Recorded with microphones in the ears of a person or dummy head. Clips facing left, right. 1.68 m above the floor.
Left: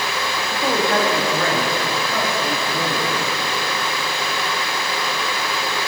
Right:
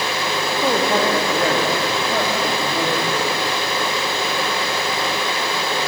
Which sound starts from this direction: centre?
A man speaking, at 0.5 s.